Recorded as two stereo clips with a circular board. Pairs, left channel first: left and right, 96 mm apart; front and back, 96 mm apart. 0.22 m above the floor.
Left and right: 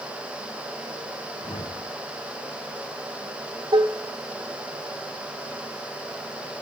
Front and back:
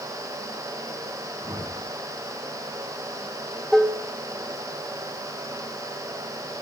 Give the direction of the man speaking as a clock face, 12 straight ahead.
I don't hear a man speaking.